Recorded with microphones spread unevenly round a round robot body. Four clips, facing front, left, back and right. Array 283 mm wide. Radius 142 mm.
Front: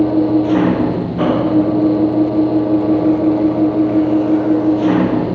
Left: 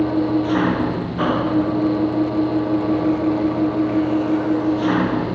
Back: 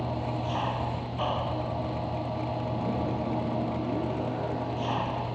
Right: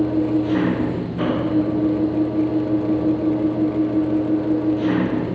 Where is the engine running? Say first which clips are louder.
Left 1 dB, front 19 dB; straight ahead.